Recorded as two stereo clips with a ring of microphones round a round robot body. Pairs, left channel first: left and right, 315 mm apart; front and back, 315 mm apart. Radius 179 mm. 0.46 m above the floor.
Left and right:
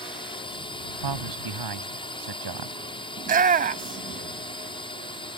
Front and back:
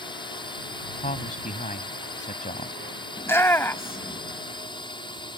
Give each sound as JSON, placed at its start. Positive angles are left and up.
{"t": 0.0, "sound": "a drone", "azimuth_deg": 45}
{"t": 1.0, "sound": "a man speaking", "azimuth_deg": -65}
{"t": 3.2, "sound": "a shout", "azimuth_deg": -75}